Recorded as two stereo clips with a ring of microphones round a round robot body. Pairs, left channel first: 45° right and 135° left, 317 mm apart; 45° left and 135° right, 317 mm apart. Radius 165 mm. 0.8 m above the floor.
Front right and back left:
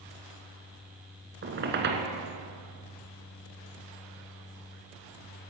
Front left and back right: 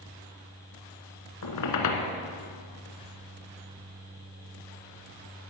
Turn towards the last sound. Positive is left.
turn(degrees=80)